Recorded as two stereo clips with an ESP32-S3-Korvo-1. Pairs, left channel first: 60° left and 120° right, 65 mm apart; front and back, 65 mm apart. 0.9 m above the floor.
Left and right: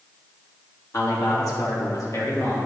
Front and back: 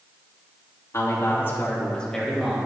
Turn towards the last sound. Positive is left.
turn(degrees=105)